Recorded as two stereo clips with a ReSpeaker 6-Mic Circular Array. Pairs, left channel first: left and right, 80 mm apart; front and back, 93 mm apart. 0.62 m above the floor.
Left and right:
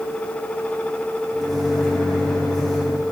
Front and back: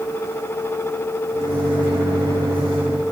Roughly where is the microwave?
Behind.